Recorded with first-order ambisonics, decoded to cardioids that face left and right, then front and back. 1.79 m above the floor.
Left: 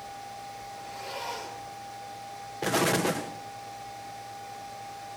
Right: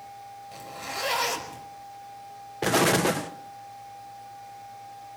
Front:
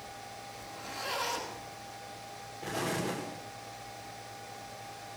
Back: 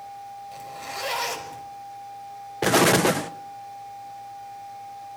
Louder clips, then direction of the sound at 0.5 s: Right 4 dB, back 8 dB; 130° right.